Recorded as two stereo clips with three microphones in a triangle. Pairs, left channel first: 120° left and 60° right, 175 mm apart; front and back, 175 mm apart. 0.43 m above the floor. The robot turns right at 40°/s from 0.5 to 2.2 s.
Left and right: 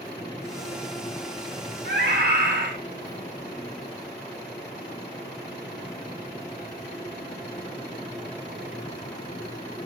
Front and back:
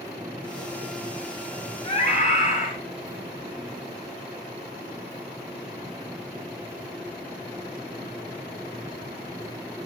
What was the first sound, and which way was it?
A scream, 60° right.